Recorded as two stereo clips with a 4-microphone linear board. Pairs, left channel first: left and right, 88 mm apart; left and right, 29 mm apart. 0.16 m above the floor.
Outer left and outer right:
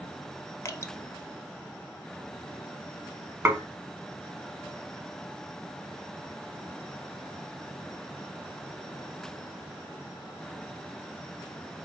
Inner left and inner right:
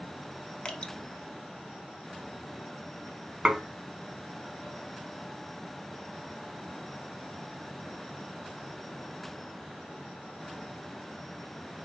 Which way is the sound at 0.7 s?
30° left (ahead or behind).